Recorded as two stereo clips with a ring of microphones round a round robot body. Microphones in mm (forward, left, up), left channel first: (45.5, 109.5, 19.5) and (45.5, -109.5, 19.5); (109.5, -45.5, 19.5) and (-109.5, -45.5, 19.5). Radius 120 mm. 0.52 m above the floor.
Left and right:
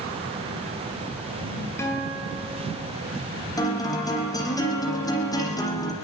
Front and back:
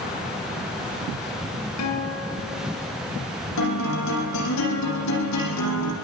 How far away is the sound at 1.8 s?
About 8 m.